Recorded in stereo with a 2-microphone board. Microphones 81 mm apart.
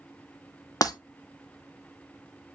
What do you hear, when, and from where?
0.8 s breaking glass: 55° left (ahead or behind), 0.8 m